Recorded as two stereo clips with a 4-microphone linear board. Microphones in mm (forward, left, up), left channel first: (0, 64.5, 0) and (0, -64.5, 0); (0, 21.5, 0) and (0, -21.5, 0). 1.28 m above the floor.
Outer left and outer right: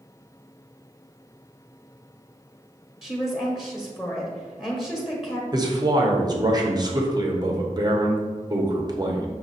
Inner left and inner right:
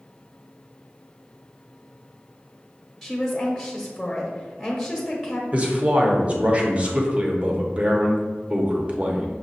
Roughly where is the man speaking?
Right.